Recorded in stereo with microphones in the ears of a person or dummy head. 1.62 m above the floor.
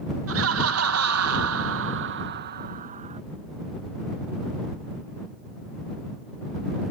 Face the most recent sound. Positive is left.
turn(degrees=-35)  # may be behind; listen again after turning